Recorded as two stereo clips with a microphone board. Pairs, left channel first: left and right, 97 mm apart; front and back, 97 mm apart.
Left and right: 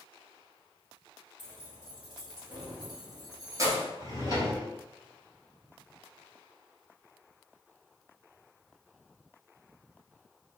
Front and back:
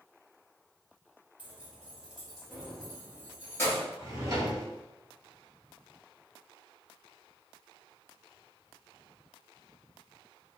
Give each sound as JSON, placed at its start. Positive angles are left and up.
{"t": 1.4, "sound": "keys jangling", "azimuth_deg": -110, "distance_m": 1.6}
{"t": 4.0, "sound": "a drawer", "azimuth_deg": -130, "distance_m": 1.3}